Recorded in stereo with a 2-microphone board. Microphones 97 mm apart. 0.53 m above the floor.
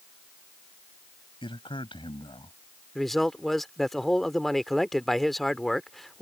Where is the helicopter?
No helicopter in this recording.